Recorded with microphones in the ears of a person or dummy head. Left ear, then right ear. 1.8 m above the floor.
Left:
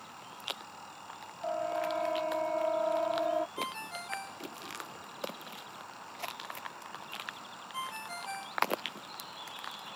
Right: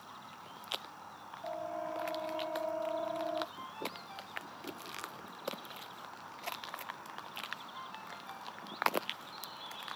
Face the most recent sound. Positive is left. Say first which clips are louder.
# left 5 dB
turn(degrees=70)  # may be behind; listen again after turning